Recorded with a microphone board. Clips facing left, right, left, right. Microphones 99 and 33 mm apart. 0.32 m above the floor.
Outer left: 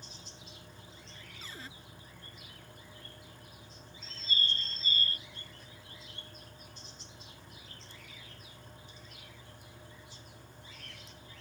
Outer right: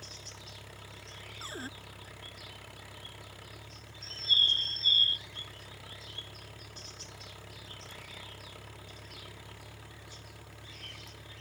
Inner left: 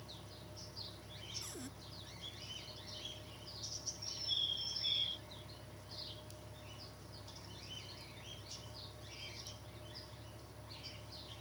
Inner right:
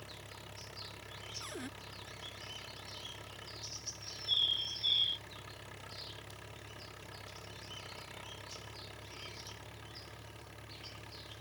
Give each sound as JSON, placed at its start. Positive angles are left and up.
{"t": 0.0, "sound": "an engine running", "side_deg": -80}
{"t": 1.4, "sound": "a cupboard door", "side_deg": -35}
{"t": 4.0, "sound": "a bird", "side_deg": -30}